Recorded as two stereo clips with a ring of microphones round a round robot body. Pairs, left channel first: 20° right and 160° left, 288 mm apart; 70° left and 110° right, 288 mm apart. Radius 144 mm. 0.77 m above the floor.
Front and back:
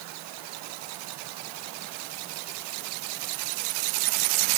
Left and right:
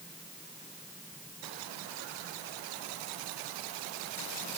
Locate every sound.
Only background noise.